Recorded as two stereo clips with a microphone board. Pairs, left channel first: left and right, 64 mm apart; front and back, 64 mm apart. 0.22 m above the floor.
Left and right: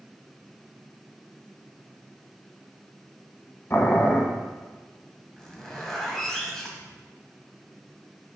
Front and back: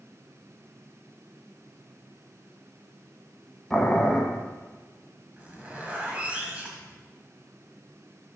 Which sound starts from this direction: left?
Boiling, at 3.7 s.